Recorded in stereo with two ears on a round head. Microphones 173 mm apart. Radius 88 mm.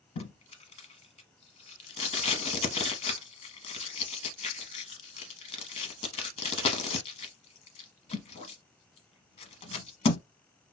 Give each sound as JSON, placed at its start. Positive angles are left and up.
{"t": 0.2, "sound": "tape being pulled", "side_deg": 35, "distance_m": 0.8}